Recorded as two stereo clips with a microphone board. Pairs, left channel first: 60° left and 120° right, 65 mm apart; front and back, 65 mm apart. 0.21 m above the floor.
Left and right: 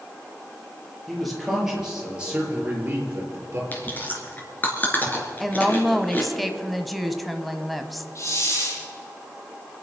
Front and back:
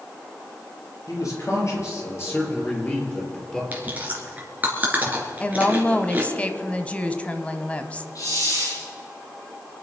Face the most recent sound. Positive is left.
turn(degrees=20)